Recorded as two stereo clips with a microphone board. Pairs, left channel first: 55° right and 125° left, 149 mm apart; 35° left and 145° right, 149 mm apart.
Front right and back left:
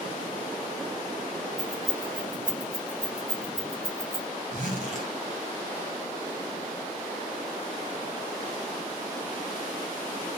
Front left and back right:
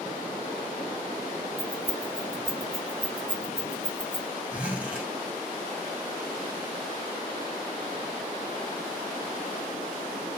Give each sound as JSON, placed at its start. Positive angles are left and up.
{"t": 1.6, "sound": "keys jangling", "azimuth_deg": 130, "distance_m": 2.0}
{"t": 4.5, "sound": "a zipper", "azimuth_deg": 135, "distance_m": 1.4}